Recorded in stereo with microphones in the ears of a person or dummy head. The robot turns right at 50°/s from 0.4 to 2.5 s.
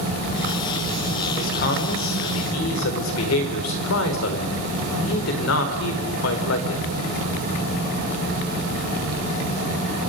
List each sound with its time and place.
1.4 s a man speaking: 50° left, 4 m; by 6.8 s 110° left, 4 m